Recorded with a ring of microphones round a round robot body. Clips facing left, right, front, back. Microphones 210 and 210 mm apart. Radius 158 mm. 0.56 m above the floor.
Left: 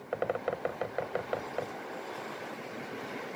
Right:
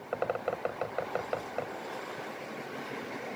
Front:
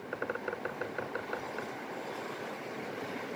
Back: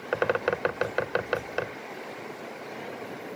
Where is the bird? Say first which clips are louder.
Even, back 11 dB; 175° left.